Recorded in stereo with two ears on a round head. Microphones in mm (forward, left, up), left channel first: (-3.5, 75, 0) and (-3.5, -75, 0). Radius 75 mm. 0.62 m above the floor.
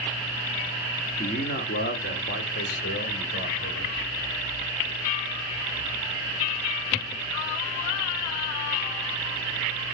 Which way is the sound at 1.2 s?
45° left (ahead or behind).